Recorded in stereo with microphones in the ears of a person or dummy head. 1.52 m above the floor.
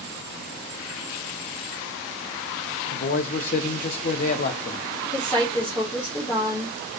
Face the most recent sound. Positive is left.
turn(degrees=20)  # may be behind; listen again after turning